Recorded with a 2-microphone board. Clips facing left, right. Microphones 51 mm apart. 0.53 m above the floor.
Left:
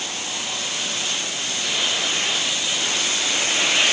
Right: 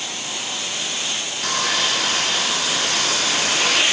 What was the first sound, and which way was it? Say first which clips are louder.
Sawing: right 5 dB; 80° right.